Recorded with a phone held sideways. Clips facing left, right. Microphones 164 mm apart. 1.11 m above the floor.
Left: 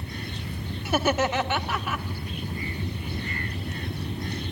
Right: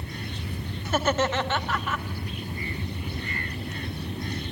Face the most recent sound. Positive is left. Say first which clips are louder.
# left 1 dB
turn(degrees=10)  # may be behind; listen again after turning